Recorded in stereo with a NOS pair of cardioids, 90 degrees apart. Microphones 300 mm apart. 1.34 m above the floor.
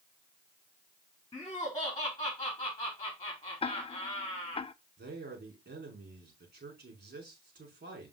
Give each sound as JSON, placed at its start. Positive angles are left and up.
{"t": 1.3, "sound": "laughter", "azimuth_deg": 15, "distance_m": 3.5}
{"t": 3.6, "sound": "ticking", "azimuth_deg": 20, "distance_m": 0.5}
{"t": 5.0, "sound": "a man speaking", "azimuth_deg": -35, "distance_m": 5.0}